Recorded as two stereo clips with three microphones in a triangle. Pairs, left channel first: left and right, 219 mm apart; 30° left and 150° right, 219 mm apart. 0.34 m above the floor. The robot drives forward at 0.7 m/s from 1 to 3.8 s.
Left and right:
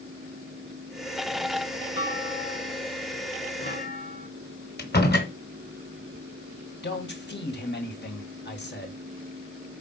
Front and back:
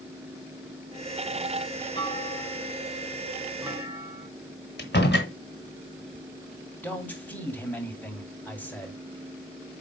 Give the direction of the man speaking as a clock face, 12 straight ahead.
8 o'clock.